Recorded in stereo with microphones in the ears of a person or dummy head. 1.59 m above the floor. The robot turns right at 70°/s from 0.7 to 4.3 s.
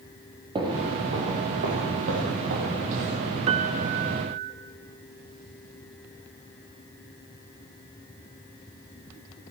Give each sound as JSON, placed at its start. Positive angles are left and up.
{"t": 0.6, "sound": "footsteps", "side_deg": -25, "distance_m": 3.0}
{"t": 3.5, "sound": "a piano", "azimuth_deg": -140, "distance_m": 0.9}